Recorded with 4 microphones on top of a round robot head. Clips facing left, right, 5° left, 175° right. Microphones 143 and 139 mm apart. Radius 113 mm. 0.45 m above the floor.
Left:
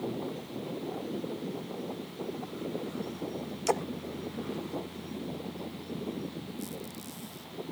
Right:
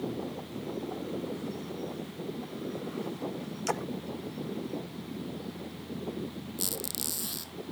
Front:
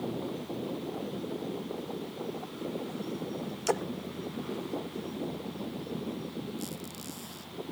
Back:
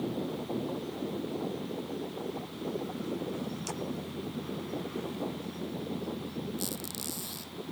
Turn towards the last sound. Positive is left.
turn(degrees=-105)